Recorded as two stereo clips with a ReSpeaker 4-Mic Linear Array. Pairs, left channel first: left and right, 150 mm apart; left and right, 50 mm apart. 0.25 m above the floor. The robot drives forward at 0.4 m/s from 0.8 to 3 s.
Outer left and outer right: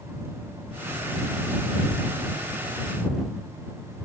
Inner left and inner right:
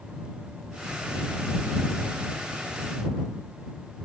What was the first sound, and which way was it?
Only background noise.